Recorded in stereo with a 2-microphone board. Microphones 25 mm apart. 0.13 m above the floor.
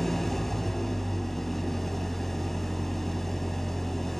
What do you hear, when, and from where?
0.0 s an engine running: 15° left (ahead or behind), 2 m